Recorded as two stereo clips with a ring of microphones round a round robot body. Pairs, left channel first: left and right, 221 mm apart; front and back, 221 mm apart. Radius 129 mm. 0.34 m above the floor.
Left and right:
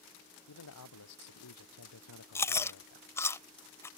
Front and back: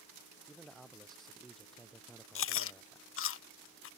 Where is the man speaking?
90° left; by 3.1 s 85° left.